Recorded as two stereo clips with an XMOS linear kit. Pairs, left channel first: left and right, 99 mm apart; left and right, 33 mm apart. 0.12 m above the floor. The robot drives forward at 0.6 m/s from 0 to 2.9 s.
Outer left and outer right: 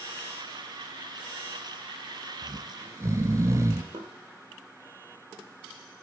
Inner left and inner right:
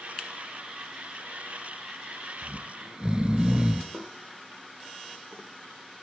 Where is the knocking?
55° right (ahead or behind), 3 m.